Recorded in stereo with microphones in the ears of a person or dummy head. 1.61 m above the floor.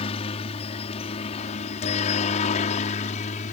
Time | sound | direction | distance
0.0 | a helicopter | 35° left (ahead or behind) | ?